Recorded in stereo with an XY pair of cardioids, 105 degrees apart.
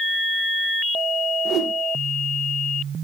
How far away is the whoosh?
About 0.5 m.